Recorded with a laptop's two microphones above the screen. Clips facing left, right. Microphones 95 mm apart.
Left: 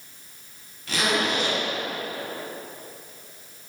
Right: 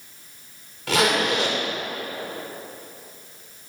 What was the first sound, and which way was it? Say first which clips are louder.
A zipper: right 4 dB; 85° right.